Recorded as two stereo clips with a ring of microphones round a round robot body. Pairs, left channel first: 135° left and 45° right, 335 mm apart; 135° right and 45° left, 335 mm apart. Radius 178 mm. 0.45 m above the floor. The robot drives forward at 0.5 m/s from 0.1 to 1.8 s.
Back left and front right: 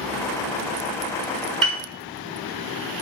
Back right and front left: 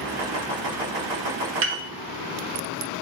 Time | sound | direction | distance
1.6 | a piano | 45° left | 0.7 m